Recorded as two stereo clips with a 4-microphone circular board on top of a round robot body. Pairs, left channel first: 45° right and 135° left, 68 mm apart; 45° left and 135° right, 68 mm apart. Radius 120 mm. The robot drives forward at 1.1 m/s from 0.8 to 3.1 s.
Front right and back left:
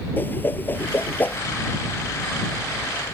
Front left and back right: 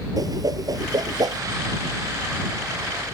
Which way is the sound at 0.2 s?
105° right.